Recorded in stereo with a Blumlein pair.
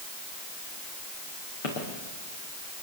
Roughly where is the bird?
No bird in this recording.